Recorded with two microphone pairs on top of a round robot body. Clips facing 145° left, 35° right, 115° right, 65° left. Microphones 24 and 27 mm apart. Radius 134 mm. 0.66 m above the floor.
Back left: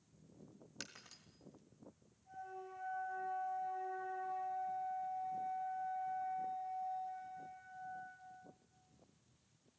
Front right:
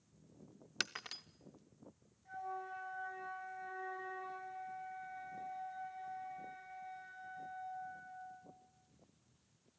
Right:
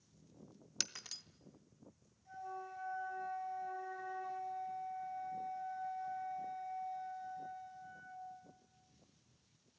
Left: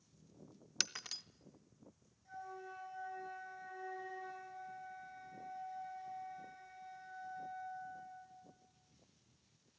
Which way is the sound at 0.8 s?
10° right.